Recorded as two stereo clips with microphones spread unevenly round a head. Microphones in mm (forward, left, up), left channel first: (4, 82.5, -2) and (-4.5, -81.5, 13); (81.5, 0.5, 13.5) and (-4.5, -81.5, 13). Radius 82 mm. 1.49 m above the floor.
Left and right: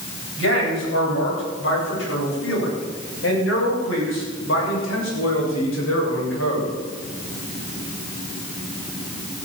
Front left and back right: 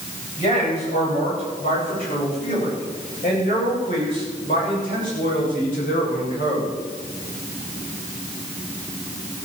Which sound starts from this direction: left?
A man speaking, at 0.4 s.